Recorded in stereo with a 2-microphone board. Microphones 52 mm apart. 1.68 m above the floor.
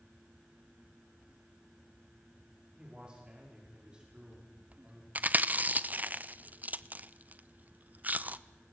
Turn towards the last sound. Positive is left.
turn(degrees=-35)  # may be behind; listen again after turning